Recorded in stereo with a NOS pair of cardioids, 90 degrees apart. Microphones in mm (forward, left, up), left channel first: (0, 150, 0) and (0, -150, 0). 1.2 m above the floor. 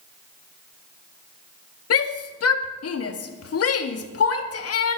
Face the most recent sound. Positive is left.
turn(degrees=50)